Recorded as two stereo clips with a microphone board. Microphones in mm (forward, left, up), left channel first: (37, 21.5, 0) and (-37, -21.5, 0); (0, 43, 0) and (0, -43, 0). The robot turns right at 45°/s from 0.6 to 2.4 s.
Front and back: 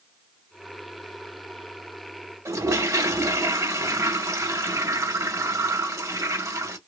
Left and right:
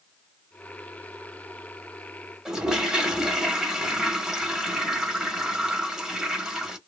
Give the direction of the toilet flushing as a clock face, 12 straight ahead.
6 o'clock.